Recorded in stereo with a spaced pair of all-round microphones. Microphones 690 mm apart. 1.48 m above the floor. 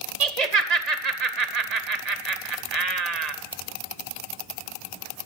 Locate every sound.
0.2 s laughter: 70° right (ahead or behind), 1.3 m